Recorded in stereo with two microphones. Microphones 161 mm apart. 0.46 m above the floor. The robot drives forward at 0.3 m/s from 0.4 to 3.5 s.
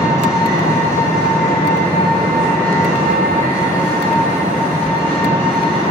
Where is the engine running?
20° left (ahead or behind), 1.5 m; by 5.9 s 15° left (ahead or behind), 2.5 m.